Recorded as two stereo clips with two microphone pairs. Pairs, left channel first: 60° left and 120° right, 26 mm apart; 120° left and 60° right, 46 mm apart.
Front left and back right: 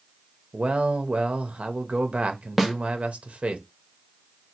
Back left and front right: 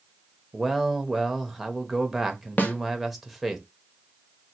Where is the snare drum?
160° left, 0.7 m.